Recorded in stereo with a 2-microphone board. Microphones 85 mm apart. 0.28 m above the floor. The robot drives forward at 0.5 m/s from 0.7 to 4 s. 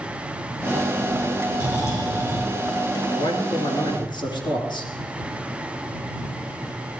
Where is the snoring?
40° left (ahead or behind), 5.5 m.